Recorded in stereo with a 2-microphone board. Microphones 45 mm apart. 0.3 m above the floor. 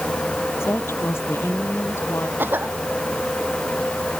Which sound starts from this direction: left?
A woman speaking, at 0.6 s.